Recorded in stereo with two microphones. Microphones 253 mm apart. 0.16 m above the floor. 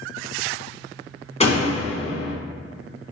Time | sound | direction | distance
1.4 | a door slam | 25° left (ahead or behind) | 1.2 m